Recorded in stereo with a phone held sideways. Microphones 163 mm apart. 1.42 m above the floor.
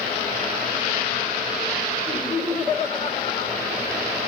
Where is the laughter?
45° left (ahead or behind), 5.5 m.